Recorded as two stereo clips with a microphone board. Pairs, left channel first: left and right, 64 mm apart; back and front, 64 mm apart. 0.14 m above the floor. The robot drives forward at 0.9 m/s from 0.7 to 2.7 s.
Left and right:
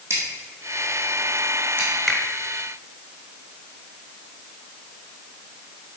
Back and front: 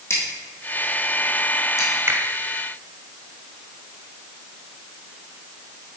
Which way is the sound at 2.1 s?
5° left.